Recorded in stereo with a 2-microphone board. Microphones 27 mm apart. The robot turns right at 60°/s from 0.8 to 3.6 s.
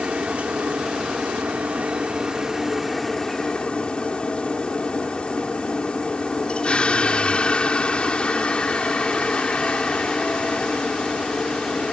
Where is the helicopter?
130° right; by 11.9 s 40° left.